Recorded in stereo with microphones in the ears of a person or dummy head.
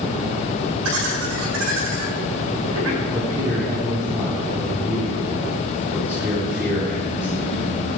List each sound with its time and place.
0.8 s laughter: 75° right (ahead or behind), 6 m
3.1 s a man speaking: 10° right (ahead or behind), 3.5 m